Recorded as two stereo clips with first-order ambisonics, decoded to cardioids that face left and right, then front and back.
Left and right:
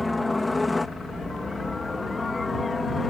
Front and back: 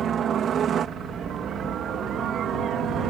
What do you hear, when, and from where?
0.0 s a helicopter: 165° left; by 3.1 s 155° left